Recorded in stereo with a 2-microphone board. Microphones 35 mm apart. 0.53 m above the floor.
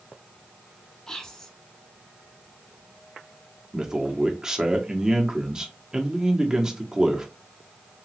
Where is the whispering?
15° left (ahead or behind), 1.3 m.